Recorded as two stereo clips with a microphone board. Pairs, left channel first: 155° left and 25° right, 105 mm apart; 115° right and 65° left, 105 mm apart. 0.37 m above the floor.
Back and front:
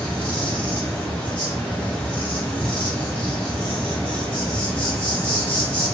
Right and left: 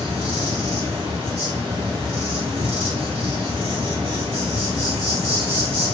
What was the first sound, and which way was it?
An insect, 80° left.